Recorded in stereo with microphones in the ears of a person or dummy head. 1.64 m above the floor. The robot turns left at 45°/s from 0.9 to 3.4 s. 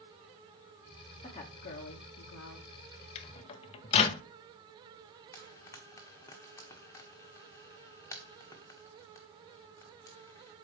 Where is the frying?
15° left (ahead or behind), 1.3 m.